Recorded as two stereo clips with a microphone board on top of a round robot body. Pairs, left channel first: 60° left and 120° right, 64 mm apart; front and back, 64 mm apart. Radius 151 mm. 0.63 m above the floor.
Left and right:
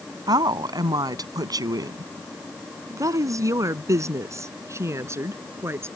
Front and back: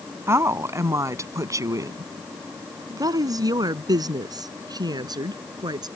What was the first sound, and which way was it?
A woman speaking, 130° right.